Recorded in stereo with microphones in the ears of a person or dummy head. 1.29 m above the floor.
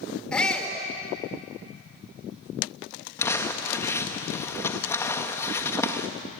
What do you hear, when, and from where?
0.3 s a shout: 10° left (ahead or behind), 4 m
3.2 s crumpling: 10° left (ahead or behind), 1.5 m